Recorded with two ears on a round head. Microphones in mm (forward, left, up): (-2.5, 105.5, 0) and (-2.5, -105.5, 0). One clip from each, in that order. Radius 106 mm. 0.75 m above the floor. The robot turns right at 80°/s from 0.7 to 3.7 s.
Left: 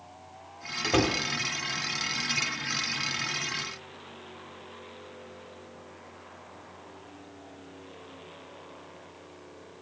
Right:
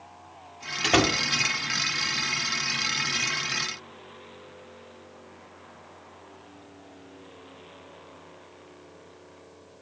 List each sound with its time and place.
0.8 s a door slam: 50° right (ahead or behind), 1.2 m; by 1.2 s 20° right (ahead or behind), 1.2 m